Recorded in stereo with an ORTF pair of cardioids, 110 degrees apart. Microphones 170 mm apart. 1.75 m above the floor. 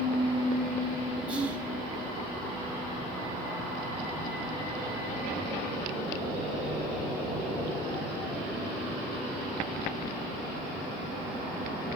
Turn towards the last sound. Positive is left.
turn(degrees=-10)